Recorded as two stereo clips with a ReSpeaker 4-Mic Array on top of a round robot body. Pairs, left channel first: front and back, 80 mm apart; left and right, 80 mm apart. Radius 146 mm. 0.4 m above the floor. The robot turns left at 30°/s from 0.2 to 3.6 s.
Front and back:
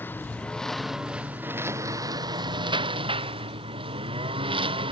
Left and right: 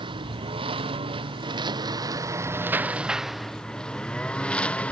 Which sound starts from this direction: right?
A lawn mower, at 0.0 s.